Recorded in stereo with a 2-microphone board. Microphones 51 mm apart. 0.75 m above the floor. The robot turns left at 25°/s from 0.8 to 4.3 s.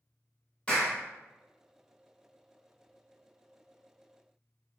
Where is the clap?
15° left (ahead or behind), 1.6 m.